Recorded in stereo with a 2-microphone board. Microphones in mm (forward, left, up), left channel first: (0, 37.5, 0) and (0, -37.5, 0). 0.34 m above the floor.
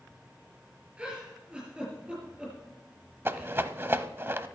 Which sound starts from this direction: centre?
A giggle, at 1.0 s.